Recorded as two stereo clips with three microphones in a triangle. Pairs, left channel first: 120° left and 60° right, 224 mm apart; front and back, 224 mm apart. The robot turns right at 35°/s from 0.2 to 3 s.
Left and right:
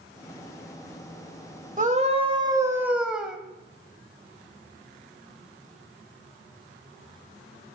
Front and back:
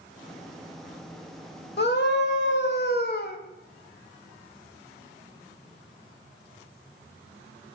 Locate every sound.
1.8 s a scream: 20° right, 1.3 m; by 3.4 s 25° left, 1.3 m